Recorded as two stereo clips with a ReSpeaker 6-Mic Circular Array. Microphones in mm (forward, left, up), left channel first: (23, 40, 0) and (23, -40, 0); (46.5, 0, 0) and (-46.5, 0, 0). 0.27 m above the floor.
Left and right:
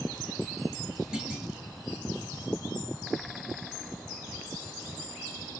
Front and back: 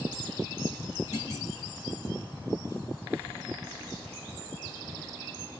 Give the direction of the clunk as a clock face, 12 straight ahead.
6 o'clock.